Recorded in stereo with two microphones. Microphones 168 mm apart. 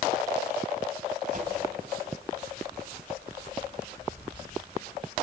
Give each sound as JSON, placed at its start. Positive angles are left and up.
{"t": 1.3, "sound": "a whoosh", "side_deg": -50, "distance_m": 3.5}